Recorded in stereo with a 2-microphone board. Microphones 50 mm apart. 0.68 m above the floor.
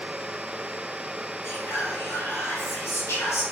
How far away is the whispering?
About 1.3 m.